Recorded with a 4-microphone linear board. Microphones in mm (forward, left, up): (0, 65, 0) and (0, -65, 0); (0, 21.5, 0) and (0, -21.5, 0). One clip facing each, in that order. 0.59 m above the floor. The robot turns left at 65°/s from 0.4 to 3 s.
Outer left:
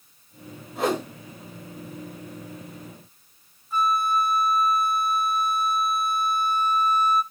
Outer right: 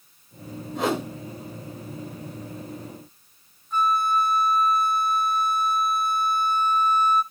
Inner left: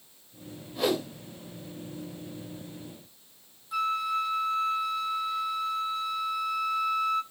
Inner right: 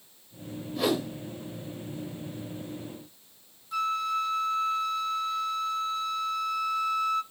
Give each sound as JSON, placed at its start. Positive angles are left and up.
{"t": 0.8, "sound": "a whoosh", "side_deg": 5, "distance_m": 1.7}
{"t": 3.7, "sound": "a flute", "side_deg": 5, "distance_m": 0.7}